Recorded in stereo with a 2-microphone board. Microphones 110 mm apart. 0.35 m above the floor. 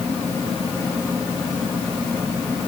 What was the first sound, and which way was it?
Only background noise.